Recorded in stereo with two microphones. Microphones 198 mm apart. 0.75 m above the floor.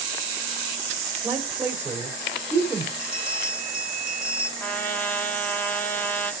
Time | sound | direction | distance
1.2 | a woman speaking | 10° right (ahead or behind) | 3.5 m
3.0 | a bell | 30° left (ahead or behind) | 2 m
4.6 | a trumpet | 10° left (ahead or behind) | 1.7 m